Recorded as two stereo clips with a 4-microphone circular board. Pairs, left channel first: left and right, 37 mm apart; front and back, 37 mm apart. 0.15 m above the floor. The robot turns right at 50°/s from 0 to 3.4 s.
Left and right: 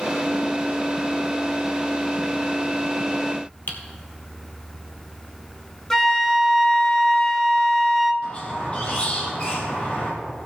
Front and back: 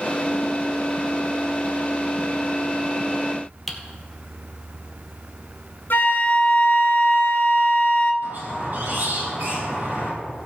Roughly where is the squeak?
Behind left.